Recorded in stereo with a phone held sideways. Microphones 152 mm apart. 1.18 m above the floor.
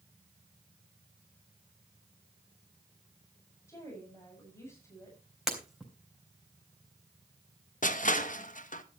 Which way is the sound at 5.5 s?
Centre (ahead or behind).